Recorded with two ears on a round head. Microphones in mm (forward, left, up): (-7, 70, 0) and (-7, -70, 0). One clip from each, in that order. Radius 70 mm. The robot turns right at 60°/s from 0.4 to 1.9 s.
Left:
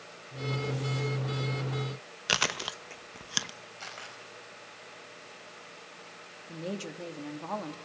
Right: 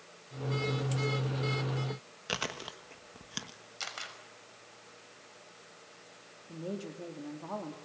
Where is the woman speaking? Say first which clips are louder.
Left 2 dB; 60° left (ahead or behind), 2.5 m.